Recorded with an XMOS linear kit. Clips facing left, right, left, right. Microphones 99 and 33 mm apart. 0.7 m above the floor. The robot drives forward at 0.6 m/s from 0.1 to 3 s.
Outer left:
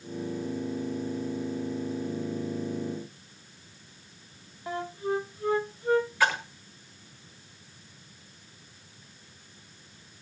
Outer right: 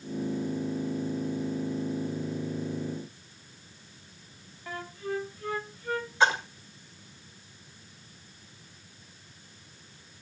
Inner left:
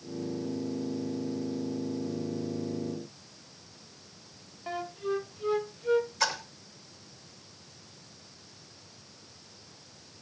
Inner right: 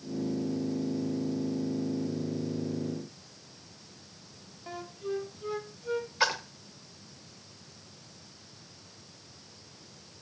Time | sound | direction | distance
4.7 | a flute | 20° left (ahead or behind) | 0.8 m
6.2 | a splash | 25° right (ahead or behind) | 1.7 m